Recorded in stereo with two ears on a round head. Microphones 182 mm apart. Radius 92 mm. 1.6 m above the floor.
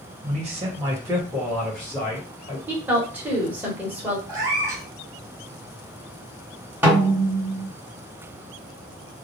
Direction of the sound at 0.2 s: 40° right (ahead or behind).